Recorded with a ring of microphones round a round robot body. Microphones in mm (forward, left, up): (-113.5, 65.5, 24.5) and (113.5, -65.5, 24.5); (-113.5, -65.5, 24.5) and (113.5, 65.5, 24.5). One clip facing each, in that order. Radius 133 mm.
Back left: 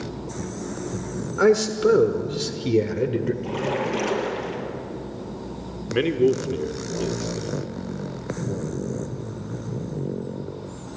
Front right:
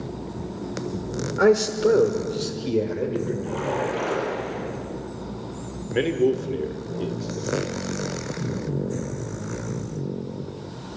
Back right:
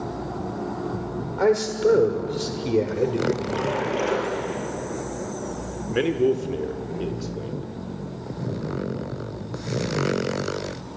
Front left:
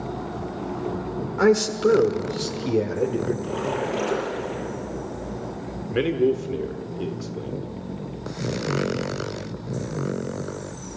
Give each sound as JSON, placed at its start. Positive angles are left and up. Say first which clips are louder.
{"t": 1.4, "sound": "a man speaking", "louder": "even, front left 1 dB", "azimuth_deg": 70, "distance_m": 1.2}
{"t": 3.4, "sound": "a splash", "louder": "back left 1 dB, back right 1 dB", "azimuth_deg": 125, "distance_m": 6.0}
{"t": 5.9, "sound": "a man speaking", "louder": "back left 1 dB, even", "azimuth_deg": 115, "distance_m": 1.4}